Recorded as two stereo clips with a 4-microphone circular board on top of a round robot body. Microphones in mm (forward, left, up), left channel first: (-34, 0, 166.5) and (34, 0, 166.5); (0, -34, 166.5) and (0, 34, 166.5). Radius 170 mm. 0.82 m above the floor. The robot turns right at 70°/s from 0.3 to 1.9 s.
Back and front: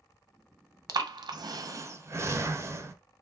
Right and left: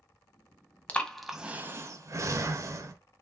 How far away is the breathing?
About 0.6 m.